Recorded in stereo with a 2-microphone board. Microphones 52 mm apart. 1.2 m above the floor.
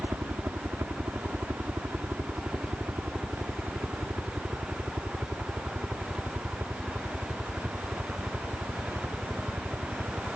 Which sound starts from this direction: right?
A helicopter, at 0.0 s.